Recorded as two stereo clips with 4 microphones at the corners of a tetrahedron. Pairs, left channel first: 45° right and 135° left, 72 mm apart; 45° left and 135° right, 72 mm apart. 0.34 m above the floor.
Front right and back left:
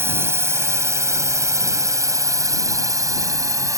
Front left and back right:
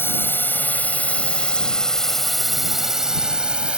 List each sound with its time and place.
0.0 s a drone: 90° left; by 3.8 s 155° left